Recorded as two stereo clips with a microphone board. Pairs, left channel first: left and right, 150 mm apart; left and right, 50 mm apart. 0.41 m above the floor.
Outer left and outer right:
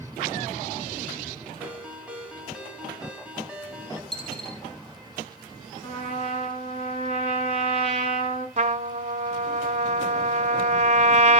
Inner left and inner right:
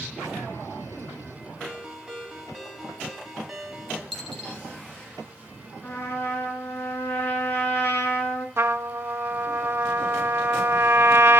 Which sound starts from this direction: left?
A trumpet, at 5.8 s.